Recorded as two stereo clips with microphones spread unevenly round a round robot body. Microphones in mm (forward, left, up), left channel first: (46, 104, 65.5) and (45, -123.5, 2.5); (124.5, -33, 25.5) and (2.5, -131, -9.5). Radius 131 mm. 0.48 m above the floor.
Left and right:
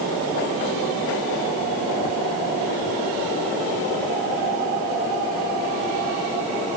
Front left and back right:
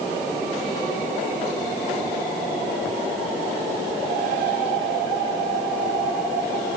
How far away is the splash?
I don't hear a splash.